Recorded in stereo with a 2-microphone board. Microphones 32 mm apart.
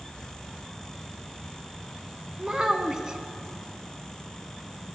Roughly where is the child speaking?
Centre.